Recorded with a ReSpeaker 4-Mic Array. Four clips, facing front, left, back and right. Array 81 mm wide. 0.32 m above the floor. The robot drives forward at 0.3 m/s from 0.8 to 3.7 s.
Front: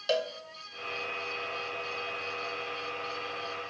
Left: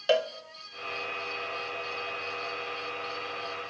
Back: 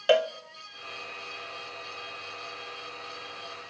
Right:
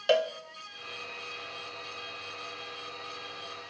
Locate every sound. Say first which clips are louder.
0.1 s a cowbell: even, back 7 dB; 175° left, 0.6 m